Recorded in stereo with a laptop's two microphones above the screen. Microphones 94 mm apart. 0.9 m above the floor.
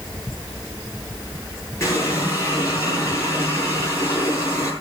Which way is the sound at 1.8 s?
30° left (ahead or behind).